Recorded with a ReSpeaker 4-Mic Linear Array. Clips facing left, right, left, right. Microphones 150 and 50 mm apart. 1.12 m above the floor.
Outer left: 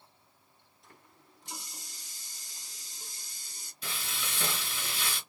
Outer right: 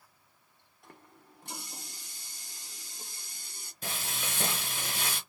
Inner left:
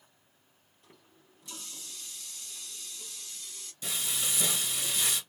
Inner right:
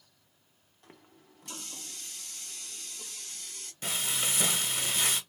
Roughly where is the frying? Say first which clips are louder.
Outer right 2 dB, inner right 3 dB; right.